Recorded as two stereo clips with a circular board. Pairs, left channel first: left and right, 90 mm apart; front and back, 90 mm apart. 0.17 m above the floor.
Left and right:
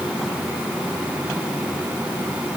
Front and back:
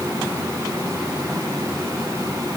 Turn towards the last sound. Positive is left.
No sound to turn to.